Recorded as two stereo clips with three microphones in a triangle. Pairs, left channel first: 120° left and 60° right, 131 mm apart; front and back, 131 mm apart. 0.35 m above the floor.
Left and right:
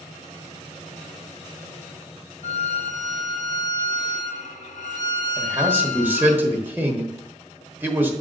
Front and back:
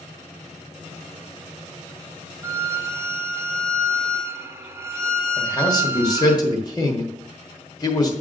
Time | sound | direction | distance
2.4 | a violin | 110° left | 0.7 m
5.4 | a man speaking | straight ahead | 1.2 m